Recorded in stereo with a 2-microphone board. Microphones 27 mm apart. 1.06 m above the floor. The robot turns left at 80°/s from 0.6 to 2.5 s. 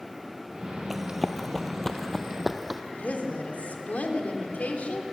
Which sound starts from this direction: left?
A woman speaking, at 2.9 s.